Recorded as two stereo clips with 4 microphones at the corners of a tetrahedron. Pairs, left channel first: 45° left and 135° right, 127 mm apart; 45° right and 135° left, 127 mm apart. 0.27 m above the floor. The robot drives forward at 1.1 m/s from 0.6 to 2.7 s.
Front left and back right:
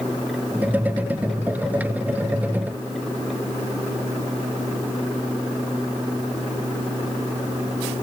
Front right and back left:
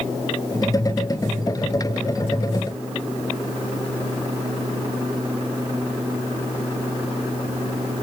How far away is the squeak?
I don't hear a squeak.